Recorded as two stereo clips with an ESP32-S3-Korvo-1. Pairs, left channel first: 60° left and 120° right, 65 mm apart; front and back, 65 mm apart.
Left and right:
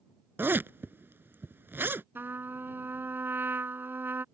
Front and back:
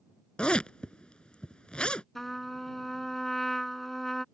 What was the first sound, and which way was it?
A zipper, 70° right.